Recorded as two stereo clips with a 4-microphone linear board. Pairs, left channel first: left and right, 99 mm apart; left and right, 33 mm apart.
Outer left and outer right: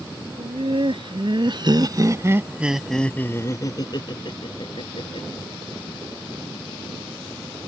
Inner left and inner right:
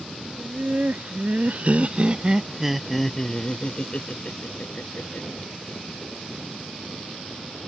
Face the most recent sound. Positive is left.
turn(degrees=65)  # may be behind; listen again after turning